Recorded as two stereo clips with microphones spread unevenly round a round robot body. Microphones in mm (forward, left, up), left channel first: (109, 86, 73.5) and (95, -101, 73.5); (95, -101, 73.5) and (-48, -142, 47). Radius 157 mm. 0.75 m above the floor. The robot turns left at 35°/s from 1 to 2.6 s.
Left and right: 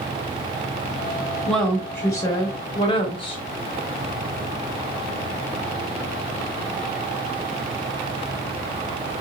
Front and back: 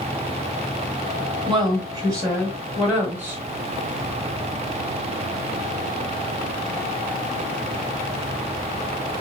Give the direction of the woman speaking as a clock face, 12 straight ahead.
6 o'clock.